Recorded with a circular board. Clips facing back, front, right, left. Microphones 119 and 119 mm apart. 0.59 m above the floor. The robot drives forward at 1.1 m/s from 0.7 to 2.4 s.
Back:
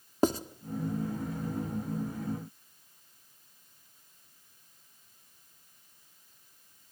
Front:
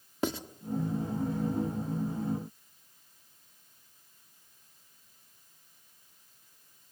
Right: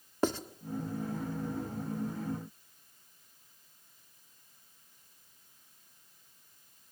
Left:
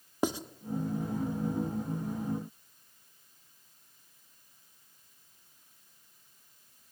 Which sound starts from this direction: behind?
Writing, at 0.2 s.